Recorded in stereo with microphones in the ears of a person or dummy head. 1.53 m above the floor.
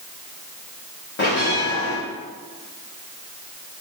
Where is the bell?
35° left (ahead or behind), 1.1 m.